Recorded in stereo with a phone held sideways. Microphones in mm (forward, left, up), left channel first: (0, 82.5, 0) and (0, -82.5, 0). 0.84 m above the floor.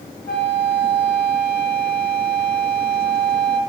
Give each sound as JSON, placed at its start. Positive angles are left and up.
{"t": 0.3, "sound": "a flute", "side_deg": 70, "distance_m": 1.0}